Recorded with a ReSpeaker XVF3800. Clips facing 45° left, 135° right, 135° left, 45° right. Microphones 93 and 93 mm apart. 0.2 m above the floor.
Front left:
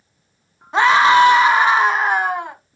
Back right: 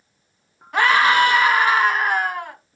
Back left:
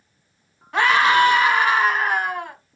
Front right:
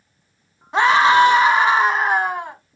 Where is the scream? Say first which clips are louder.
Front left 4 dB, front right 3 dB; 5° left, 1.6 m.